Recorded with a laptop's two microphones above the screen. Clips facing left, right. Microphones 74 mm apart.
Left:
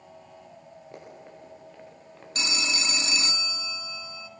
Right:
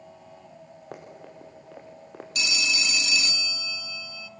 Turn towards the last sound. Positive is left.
turn(degrees=35)  # may be behind; listen again after turning